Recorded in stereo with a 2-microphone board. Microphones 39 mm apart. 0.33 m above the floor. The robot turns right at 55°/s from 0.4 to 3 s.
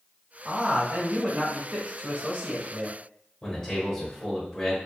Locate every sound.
0.5 s a man speaking: 175° right, 1.2 m; by 3.0 s 35° right, 1.2 m
3.4 s a man speaking: 20° left (ahead or behind), 1.2 m